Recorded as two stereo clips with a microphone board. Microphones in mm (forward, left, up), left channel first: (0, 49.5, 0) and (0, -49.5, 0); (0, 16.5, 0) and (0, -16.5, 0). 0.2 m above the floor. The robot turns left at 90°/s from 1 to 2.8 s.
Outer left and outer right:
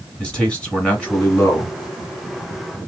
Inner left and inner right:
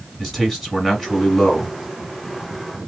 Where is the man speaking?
165° left, 1.7 m; by 1.8 s 95° left, 1.7 m.